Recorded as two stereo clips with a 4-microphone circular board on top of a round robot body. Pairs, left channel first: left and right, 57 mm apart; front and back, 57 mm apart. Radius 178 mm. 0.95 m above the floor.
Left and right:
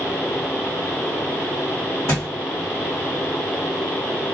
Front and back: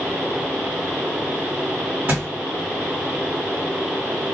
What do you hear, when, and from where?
2.1 s a thud: 125° left, 1.9 m